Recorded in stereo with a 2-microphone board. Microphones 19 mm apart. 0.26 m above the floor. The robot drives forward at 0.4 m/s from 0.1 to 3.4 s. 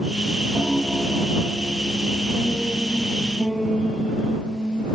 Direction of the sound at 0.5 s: 5° left (ahead or behind).